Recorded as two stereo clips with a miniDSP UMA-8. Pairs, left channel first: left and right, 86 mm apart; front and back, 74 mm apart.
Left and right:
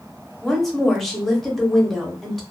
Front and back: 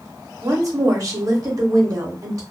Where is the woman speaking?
175° left, 0.9 m.